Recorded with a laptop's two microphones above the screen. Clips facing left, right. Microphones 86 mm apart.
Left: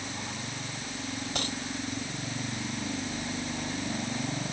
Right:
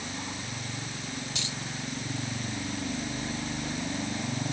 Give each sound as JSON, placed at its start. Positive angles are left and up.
{"t": 1.4, "sound": "a dropped coin", "side_deg": 45}